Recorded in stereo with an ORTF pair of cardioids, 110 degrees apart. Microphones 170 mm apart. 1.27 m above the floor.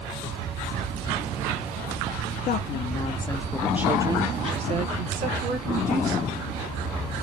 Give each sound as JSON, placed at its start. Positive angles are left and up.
{"t": 2.5, "sound": "a woman speaking", "azimuth_deg": 60, "distance_m": 0.9}